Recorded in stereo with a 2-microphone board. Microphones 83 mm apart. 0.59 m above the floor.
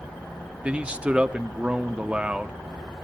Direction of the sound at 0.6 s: 15° right (ahead or behind).